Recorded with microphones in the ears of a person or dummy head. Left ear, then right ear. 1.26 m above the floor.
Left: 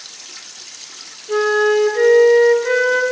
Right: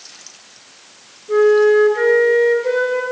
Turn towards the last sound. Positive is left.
turn(degrees=25)  # may be behind; listen again after turning